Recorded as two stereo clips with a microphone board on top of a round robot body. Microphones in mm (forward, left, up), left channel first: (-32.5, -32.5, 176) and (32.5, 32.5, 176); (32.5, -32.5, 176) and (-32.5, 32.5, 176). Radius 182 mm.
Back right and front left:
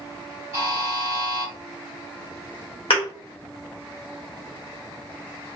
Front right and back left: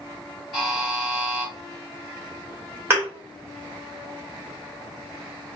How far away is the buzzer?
About 0.7 m.